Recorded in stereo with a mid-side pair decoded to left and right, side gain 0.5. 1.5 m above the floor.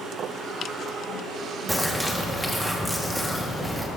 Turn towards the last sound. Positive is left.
turn(degrees=0)